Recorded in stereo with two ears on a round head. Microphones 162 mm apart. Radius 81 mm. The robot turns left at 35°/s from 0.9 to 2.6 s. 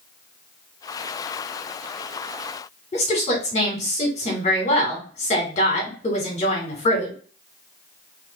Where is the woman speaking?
40° left (ahead or behind), 2 m.